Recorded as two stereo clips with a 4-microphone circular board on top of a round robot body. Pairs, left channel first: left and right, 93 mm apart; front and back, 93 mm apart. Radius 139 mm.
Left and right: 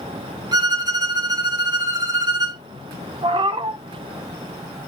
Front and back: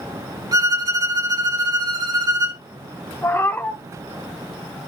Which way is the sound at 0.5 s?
135° right.